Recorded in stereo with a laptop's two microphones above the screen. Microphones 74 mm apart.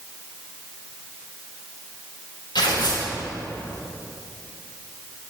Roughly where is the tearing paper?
Left.